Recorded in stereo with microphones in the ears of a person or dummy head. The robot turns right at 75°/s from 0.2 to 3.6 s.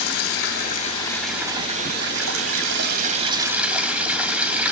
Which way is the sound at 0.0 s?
95° left.